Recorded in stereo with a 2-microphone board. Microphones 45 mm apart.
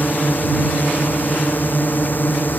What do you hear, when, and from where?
0.0 s a drone: 45° left (ahead or behind)